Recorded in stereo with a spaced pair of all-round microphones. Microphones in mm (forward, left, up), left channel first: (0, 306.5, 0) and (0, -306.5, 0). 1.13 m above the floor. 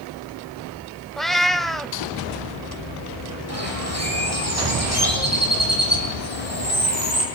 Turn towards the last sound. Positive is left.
turn(degrees=-25)  # may be behind; listen again after turning